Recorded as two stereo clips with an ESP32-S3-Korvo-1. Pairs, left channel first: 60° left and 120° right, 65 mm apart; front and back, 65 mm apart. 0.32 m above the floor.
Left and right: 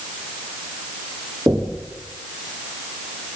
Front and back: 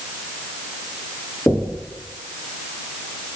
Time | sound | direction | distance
1.5 | knocking | 60° right | 8 m